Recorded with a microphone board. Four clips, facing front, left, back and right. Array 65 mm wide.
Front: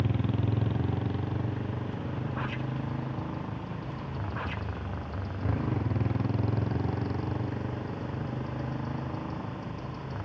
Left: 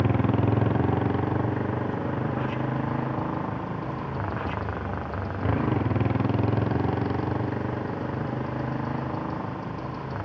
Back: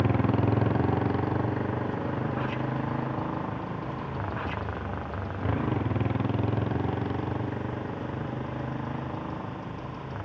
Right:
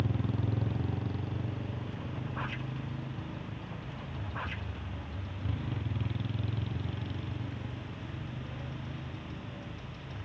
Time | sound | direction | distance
0.0 | a motorcycle | 130° left | ?